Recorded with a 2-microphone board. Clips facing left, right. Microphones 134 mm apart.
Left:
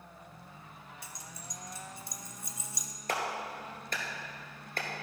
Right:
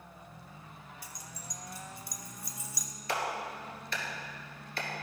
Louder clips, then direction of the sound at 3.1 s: Even; 50° left (ahead or behind).